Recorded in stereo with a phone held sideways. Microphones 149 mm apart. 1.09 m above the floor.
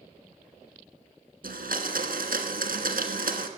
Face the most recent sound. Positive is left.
turn(degrees=-70)  # may be behind; listen again after turning